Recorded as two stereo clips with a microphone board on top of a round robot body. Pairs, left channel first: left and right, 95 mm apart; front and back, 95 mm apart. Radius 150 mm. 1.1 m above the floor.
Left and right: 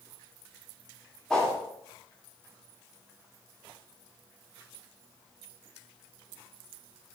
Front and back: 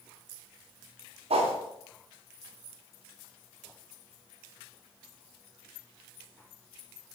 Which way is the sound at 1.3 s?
175° left.